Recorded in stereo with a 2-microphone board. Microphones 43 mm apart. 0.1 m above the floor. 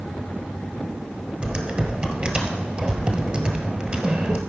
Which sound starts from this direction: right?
Typing on a keyboard, at 1.4 s.